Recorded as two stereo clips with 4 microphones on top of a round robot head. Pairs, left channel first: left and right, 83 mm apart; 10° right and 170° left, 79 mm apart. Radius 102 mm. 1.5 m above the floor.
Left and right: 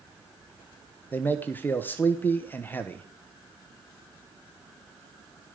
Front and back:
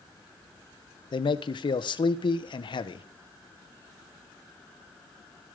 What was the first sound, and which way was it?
A man speaking, 20° left.